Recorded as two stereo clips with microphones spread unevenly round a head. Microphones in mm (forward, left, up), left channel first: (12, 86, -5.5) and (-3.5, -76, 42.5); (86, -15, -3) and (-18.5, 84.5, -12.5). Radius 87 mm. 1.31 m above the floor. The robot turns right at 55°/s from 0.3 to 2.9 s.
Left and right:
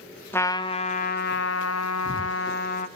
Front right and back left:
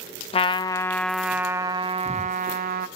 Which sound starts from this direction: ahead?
A trumpet, at 0.3 s.